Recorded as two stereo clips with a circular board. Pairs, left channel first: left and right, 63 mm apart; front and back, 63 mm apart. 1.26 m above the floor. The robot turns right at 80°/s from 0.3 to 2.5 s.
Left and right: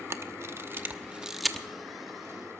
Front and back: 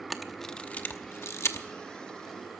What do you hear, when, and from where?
0.1 s a camera shutter: 90° right, 0.9 m; by 1.7 s 20° left, 0.9 m